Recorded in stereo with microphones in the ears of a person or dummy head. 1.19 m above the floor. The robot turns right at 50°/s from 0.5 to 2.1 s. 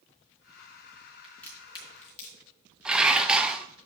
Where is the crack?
Centre (ahead or behind), 4 m; by 2.4 s 40° left (ahead or behind), 4 m.